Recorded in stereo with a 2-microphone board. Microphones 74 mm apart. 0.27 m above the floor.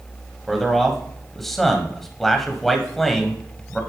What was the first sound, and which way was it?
A man speaking, 5° left (ahead or behind).